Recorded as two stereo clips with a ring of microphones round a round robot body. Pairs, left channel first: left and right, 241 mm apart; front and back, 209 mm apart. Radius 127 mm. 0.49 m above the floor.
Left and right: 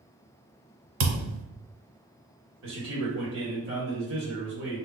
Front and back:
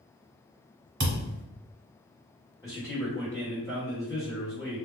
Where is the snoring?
I don't hear snoring.